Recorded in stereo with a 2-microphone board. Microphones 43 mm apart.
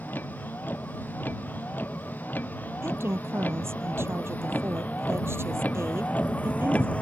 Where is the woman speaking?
75° right (ahead or behind).